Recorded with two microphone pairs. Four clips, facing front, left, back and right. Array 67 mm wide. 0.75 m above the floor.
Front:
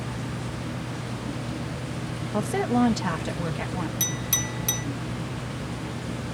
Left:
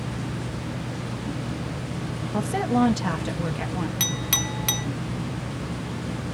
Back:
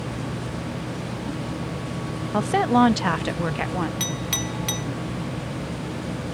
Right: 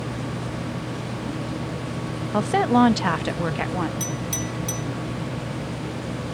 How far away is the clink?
About 0.8 m.